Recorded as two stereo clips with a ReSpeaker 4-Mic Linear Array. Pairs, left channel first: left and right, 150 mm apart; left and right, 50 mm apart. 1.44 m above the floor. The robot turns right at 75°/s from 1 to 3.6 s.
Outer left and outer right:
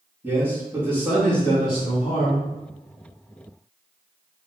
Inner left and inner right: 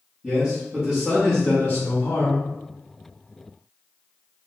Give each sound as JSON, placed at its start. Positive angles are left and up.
{"t": 0.2, "sound": "a man speaking", "azimuth_deg": -15, "distance_m": 2.0}